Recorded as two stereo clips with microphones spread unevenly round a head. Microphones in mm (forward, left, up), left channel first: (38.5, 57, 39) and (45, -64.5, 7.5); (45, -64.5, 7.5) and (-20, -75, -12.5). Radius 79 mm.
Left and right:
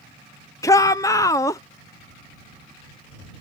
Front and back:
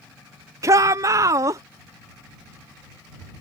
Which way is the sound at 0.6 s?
165° left.